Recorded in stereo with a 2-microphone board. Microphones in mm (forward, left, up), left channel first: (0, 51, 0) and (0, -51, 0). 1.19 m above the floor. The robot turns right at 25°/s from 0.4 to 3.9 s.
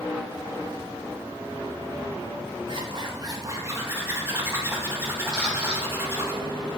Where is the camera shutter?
10° left (ahead or behind), 3.5 m.